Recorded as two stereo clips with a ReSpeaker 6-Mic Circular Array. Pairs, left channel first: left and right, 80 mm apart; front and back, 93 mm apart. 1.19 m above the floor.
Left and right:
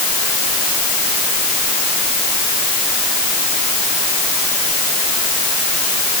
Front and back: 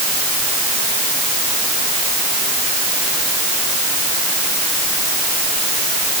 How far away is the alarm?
I don't hear an alarm.